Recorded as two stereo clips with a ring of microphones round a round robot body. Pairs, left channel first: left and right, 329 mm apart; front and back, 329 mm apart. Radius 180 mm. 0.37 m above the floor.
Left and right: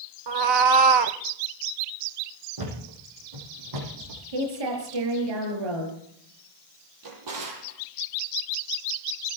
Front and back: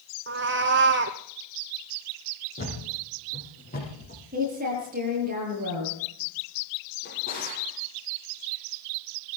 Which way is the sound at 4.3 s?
110° right.